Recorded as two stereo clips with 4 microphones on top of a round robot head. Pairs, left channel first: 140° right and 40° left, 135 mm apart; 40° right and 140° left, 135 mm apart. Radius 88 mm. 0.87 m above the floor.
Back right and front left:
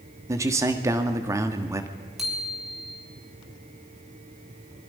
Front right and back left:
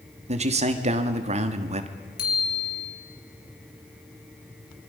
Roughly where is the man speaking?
Left.